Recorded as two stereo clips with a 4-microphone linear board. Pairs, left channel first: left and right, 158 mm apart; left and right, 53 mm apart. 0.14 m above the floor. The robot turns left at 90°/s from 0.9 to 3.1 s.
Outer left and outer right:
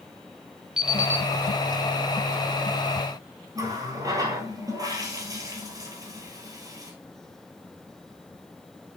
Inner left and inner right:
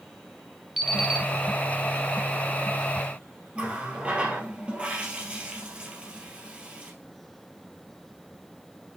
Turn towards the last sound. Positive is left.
turn(degrees=-20)  # may be behind; listen again after turning